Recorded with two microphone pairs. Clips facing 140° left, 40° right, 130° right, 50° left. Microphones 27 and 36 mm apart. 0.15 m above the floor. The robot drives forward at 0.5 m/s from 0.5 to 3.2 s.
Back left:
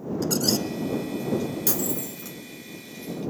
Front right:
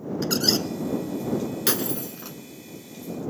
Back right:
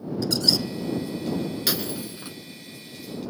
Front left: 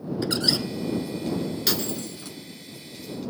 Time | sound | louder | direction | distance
0.2 | a squeak | front right 2 dB, back right 1 dB | 10° left | 0.7 m
1.7 | breaking glass | front right 2 dB, even | 50° right | 0.8 m